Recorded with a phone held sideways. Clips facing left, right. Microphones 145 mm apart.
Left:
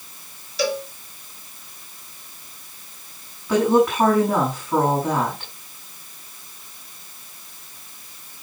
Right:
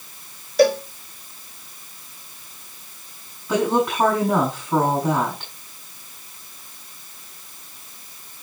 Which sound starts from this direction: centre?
A woman speaking, at 3.5 s.